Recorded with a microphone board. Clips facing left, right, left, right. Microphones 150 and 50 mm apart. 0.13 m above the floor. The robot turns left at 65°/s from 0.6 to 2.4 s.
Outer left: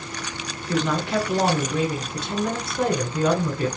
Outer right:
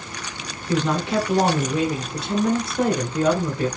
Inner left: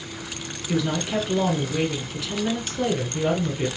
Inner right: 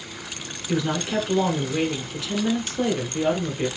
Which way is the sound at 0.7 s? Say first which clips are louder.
Outer right 2 dB, even; 20° right (ahead or behind).